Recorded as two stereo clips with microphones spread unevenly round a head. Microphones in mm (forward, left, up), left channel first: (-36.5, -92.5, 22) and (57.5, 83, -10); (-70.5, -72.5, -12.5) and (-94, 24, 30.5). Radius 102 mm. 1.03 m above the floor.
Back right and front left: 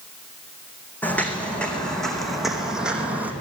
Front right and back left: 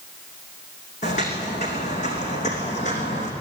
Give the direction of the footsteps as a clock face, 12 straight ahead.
1 o'clock.